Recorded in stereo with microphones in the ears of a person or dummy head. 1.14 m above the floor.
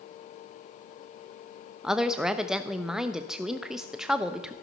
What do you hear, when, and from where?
1.8 s a woman speaking: 5° right (ahead or behind), 0.9 m